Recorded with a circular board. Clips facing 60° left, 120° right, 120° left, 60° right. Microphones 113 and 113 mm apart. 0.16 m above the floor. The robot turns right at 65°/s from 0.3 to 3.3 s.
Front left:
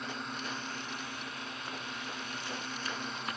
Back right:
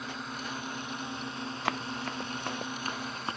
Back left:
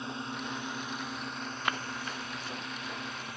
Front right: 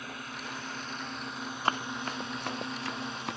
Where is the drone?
155° left; by 3.4 s 25° right.